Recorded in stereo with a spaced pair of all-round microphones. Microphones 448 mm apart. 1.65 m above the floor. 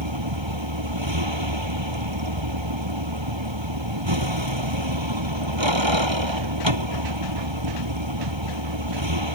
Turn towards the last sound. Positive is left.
turn(degrees=-75)  # may be behind; listen again after turning